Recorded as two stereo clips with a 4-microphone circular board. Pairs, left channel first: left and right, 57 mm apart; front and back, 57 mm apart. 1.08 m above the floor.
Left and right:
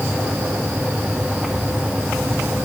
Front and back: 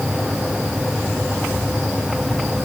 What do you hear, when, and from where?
Only background noise.